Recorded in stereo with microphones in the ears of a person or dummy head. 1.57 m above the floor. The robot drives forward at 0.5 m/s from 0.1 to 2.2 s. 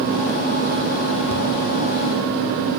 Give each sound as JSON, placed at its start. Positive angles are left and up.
{"t": 1.3, "sound": "ticking", "side_deg": 35, "distance_m": 7.0}